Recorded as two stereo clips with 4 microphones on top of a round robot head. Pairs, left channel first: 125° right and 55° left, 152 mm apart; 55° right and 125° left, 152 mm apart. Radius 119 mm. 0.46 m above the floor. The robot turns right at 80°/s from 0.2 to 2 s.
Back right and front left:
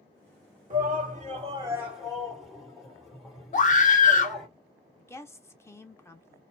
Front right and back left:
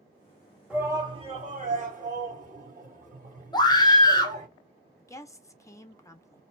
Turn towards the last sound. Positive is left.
turn(degrees=-85)